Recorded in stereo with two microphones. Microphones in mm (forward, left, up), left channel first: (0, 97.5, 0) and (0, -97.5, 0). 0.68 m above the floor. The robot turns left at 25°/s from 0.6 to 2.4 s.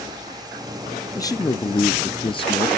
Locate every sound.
1.1 s a man speaking: 145° left, 0.5 m; by 2.7 s 110° left, 0.5 m